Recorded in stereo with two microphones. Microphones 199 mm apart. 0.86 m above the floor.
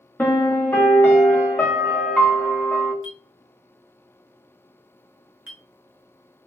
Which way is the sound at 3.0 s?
80° left.